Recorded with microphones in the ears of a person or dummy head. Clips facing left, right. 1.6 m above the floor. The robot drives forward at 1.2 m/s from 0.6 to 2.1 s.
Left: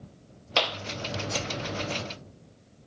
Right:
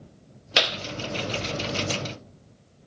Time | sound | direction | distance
0.6 | a clap | 25° right (ahead or behind) | ?